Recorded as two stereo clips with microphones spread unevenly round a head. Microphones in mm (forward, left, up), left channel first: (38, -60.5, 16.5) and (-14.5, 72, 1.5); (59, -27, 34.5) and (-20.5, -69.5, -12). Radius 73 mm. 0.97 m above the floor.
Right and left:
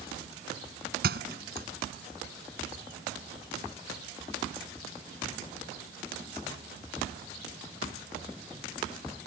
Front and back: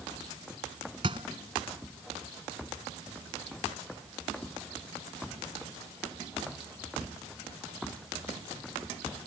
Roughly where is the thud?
Behind left.